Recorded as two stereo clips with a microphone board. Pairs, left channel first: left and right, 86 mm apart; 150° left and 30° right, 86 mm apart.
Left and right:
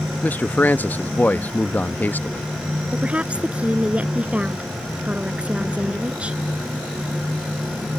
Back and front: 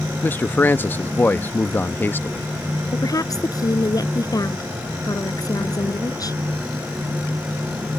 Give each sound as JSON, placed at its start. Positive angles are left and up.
{"t": 0.2, "sound": "a man speaking", "azimuth_deg": 125}
{"t": 2.9, "sound": "a woman speaking", "azimuth_deg": -165}